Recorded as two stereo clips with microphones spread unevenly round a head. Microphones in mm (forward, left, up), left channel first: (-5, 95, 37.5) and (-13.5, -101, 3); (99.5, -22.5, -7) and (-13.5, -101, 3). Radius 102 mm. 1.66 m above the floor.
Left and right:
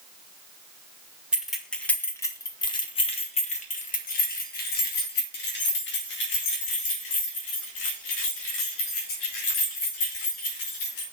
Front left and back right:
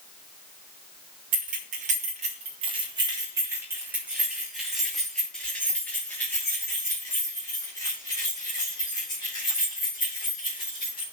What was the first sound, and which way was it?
Keys jangling, straight behind.